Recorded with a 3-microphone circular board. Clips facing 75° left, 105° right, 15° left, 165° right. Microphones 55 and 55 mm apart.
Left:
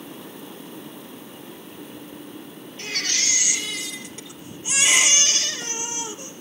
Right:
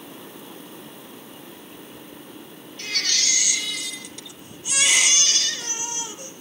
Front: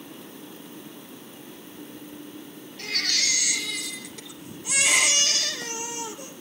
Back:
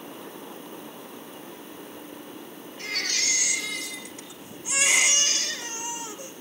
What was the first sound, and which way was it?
A baby crying, 15° left.